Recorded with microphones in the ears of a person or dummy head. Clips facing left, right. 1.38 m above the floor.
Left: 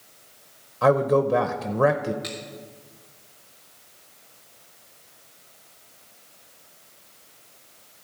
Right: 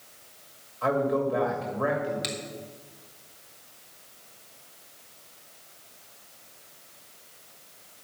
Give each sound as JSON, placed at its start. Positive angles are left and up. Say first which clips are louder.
{"t": 0.8, "sound": "a man speaking", "louder": "left 6 dB", "side_deg": 70, "distance_m": 0.8}
{"t": 2.2, "sound": "a finger snap", "louder": "even", "side_deg": -45, "distance_m": 2.5}